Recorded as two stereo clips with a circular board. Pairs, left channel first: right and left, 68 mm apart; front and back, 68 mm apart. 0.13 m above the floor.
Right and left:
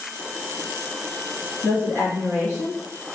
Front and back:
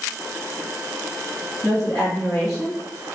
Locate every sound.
1.6 s a woman speaking: 80° right, 1.6 m